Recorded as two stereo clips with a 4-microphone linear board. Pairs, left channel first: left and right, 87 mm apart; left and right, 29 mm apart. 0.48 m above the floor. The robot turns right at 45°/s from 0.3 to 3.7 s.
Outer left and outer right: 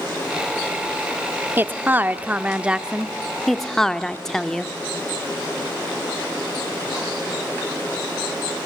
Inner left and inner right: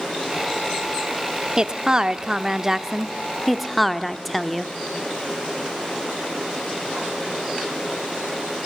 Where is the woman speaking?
25° right (ahead or behind), 0.9 m; by 4.7 s 5° left (ahead or behind), 0.9 m.